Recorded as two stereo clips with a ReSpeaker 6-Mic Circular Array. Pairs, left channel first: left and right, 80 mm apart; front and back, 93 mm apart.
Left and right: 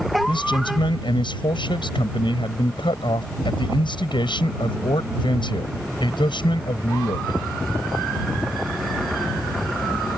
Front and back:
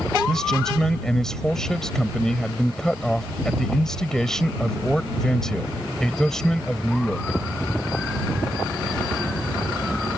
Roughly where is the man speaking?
Left.